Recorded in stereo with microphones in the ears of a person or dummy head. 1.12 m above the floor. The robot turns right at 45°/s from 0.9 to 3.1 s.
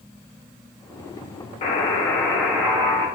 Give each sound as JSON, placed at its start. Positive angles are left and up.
{"t": 1.6, "sound": "a buzzer", "azimuth_deg": 145, "distance_m": 0.7}